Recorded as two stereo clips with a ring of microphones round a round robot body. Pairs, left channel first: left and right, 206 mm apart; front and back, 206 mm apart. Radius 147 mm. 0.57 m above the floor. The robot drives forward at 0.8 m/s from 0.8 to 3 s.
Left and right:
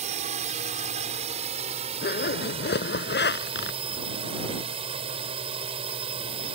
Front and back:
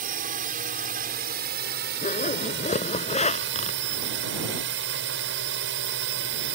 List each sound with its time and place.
0.0 s a drone: 140° right; by 6.5 s 155° right
2.0 s a zipper: 50° left; by 3.8 s 55° left